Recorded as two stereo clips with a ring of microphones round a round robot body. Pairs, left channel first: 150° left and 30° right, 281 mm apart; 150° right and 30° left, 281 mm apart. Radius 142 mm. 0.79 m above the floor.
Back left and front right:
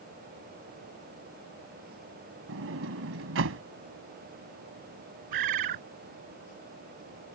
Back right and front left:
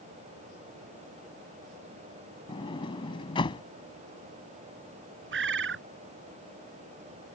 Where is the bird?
20° right.